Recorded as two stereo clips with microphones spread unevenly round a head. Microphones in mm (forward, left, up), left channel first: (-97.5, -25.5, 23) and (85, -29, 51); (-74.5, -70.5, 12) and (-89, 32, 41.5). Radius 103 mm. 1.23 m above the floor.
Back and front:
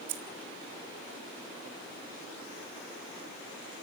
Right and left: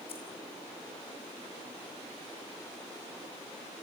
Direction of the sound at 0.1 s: 15° right.